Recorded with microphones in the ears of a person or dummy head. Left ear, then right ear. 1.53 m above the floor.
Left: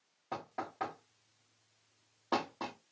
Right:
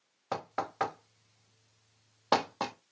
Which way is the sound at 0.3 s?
55° right (ahead or behind).